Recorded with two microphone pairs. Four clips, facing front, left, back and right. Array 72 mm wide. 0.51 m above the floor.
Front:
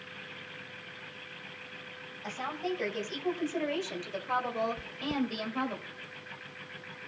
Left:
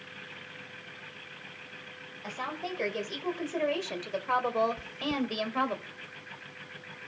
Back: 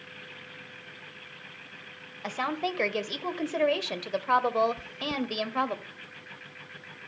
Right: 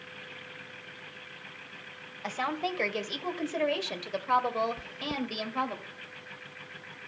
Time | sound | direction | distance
2.2 | a woman speaking | 170° right | 2.5 m
4.8 | chewing | 65° right | 0.7 m